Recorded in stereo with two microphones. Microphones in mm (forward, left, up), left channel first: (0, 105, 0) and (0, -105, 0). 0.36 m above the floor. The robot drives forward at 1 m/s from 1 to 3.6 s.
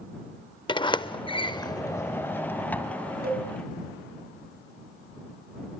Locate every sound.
0.7 s a sliding door: 20° left (ahead or behind), 0.6 m; by 3.1 s 5° left (ahead or behind), 2.0 m
3.2 s a cowbell: 45° right (ahead or behind), 4 m